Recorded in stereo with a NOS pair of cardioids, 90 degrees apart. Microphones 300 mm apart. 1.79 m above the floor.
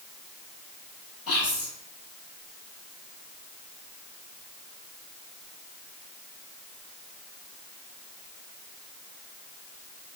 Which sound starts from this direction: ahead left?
Whispering, at 1.3 s.